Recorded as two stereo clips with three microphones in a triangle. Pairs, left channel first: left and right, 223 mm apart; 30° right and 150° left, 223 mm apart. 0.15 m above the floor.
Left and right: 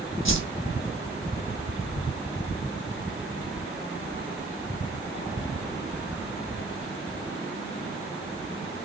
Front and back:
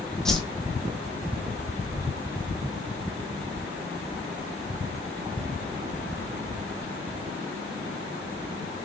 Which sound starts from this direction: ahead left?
A whoosh, at 0.2 s.